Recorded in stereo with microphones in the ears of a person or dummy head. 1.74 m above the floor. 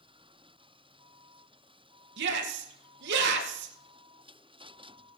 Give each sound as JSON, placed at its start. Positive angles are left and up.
{"t": 2.2, "sound": "a shout", "side_deg": -60, "distance_m": 2.0}